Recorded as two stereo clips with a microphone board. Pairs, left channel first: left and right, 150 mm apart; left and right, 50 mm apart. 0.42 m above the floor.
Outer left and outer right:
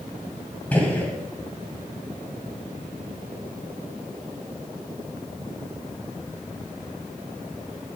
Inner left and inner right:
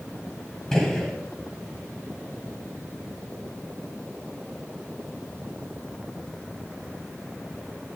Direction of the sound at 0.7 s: 10° left (ahead or behind).